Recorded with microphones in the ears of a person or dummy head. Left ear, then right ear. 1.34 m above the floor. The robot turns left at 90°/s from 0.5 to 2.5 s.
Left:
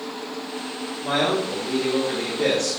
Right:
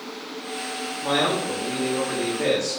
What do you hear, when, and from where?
1.0 s a man speaking: 140° right, 1.3 m; by 2.8 s 85° left, 1.3 m